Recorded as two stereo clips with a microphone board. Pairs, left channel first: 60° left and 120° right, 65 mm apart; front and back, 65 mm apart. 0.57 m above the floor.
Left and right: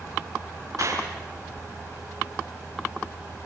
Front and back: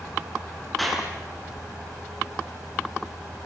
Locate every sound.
0.8 s a clap: 90° right, 7.5 m